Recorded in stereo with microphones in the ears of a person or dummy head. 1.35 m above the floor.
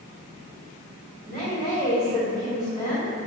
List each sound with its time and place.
1.3 s a woman speaking: 40° left (ahead or behind), 1.7 m